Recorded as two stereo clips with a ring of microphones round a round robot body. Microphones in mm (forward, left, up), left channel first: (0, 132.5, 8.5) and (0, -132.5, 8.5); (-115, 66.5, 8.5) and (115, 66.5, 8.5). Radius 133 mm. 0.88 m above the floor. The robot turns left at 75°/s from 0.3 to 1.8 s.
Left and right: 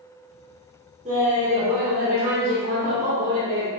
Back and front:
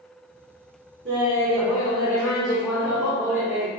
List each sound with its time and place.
1.1 s laughter: 35° right, 1.4 m; by 3.7 s 95° right, 1.4 m